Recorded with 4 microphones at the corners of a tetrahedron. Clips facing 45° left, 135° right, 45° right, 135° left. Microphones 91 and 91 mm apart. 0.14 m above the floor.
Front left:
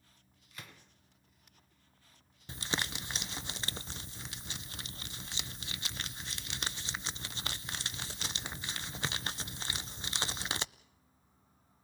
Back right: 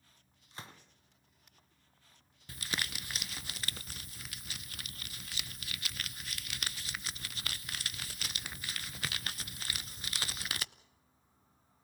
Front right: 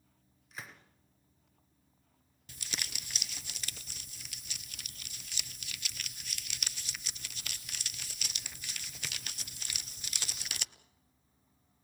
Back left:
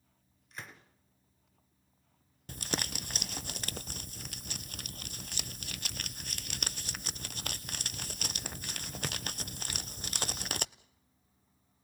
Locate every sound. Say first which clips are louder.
0.5 s a gunshot: back right 3 dB, even; 130° right, 1.8 m
2.5 s crumpling: front left 3 dB, back left 8 dB; 105° left, 0.5 m